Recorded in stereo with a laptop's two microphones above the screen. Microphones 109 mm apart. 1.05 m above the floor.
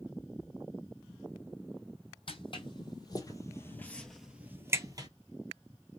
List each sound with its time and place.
2.3 s footsteps: 50° left (ahead or behind), 1.9 m; by 5.1 s 40° right (ahead or behind), 1.2 m